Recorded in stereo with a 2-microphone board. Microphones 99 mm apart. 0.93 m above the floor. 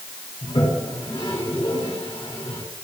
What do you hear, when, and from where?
0.4 s a toilet flushing: 65° left (ahead or behind), 4.5 m